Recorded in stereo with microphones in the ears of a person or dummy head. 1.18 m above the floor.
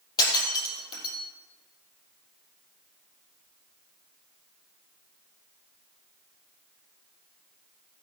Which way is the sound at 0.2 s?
25° left (ahead or behind).